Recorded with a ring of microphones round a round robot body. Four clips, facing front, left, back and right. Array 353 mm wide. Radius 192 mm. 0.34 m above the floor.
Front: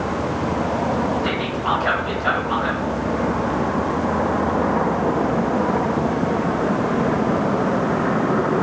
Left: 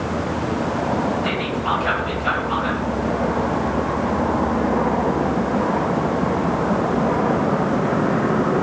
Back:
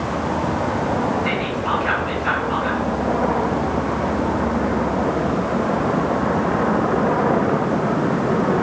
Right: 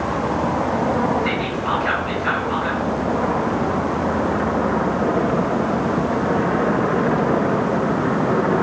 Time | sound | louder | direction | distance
1.2 | whispering | even, even | 25° left | 2 m